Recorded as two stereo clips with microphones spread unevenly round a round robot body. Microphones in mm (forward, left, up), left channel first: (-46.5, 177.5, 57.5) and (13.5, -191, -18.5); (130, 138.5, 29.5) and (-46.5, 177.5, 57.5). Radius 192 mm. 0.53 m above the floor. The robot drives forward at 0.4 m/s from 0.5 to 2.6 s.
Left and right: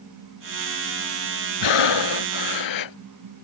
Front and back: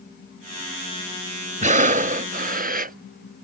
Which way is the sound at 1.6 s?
120° left.